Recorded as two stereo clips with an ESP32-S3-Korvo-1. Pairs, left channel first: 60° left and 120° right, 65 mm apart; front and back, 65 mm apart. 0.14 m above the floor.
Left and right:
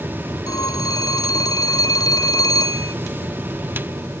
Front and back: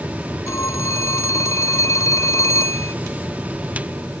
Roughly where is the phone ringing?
Ahead left.